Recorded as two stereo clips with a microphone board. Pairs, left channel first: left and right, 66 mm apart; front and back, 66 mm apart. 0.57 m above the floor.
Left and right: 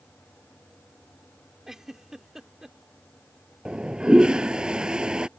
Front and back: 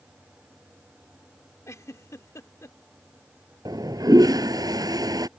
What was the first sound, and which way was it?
A giggle, 5° right.